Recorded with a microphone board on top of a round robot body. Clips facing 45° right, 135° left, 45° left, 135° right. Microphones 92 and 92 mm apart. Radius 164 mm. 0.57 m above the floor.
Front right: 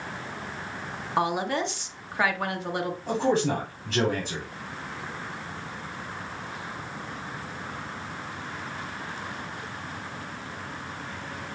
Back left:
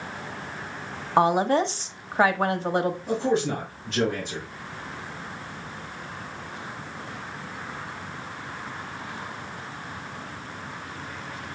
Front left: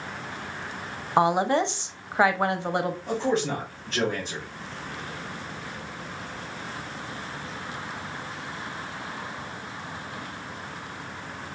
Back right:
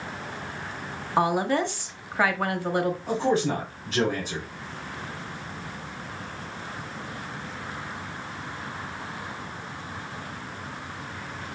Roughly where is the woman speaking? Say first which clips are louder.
Back left 6 dB, front left 2 dB; left.